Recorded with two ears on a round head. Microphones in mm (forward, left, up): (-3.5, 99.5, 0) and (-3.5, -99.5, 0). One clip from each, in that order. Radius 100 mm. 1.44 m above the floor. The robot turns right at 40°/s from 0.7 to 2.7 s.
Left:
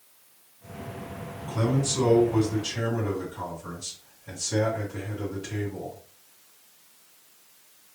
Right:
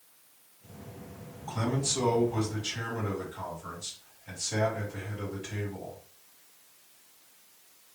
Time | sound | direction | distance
1.5 | a man speaking | 60° right | 3.5 m